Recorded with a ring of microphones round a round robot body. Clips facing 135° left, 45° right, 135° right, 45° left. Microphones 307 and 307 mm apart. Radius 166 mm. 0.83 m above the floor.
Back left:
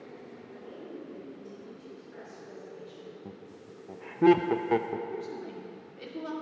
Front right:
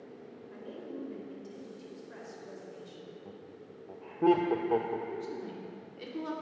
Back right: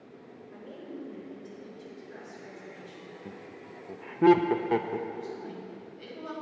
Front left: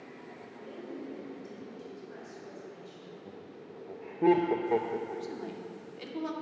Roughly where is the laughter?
Behind.